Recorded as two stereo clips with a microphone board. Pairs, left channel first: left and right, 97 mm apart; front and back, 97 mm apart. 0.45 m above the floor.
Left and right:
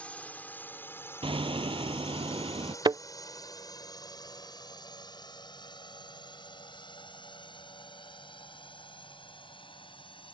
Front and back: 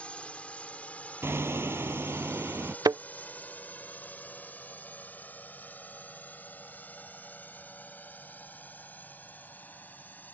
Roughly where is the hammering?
Behind right.